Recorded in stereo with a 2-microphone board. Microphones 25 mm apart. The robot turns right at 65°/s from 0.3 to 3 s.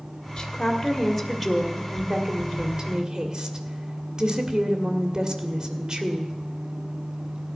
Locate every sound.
0.4 s a woman speaking: 120° left, 1.5 m; by 6.3 s 70° right, 1.5 m